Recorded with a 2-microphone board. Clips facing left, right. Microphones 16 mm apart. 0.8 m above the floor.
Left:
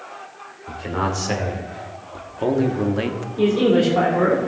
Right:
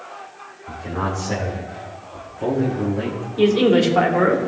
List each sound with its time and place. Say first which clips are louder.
0.7 s a man speaking: left 1 dB; 70° left (ahead or behind), 3 m; by 3.3 s 50° left (ahead or behind), 1.1 m
3.4 s a man speaking: right 2 dB; 35° right (ahead or behind), 2.5 m